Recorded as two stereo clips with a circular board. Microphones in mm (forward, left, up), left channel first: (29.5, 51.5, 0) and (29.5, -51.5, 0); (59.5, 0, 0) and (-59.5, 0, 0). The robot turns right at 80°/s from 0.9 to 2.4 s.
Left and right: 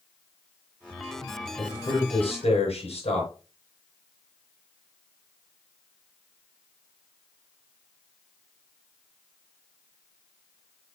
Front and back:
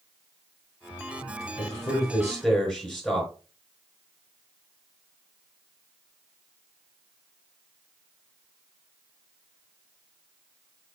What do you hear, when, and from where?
1.6 s a man speaking: 20° left, 5 m; by 3.3 s 85° left, 5 m